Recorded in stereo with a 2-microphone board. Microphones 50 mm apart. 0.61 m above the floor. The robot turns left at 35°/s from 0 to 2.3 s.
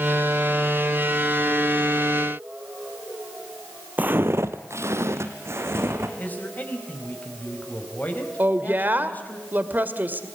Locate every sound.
4.0 s footsteps: 35° right (ahead or behind), 1.1 m; by 6.1 s 55° right (ahead or behind), 3 m
6.2 s a man speaking: 35° left (ahead or behind), 4.5 m
8.4 s a woman speaking: 40° right (ahead or behind), 2 m